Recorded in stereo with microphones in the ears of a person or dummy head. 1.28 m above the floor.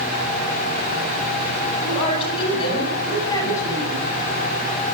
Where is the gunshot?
No gunshot in this recording.